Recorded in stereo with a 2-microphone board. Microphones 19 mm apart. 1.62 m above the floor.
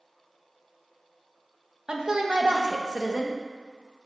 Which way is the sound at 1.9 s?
45° right (ahead or behind).